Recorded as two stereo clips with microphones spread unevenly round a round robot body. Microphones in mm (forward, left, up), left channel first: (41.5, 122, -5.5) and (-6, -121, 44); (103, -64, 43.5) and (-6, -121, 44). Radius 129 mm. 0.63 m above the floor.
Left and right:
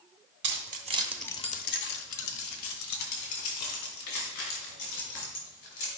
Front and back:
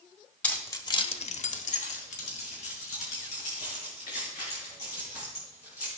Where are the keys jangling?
50° right, 1.3 m; by 5.9 s 90° left, 5.5 m.